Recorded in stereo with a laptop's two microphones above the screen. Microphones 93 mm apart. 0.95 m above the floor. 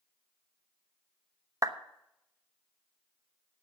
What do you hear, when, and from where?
1.6 s a clap: 35° right (ahead or behind), 0.9 m